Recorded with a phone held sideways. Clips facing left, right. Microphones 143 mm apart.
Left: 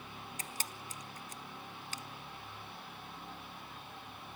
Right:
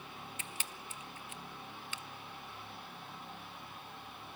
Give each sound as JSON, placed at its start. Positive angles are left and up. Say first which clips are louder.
{"t": 0.4, "sound": "a camera shutter", "louder": "left 2 dB", "side_deg": 40, "distance_m": 0.7}